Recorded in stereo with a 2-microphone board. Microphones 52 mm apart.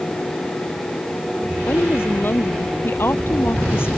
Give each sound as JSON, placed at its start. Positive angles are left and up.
{"t": 1.7, "sound": "a woman speaking", "side_deg": 50}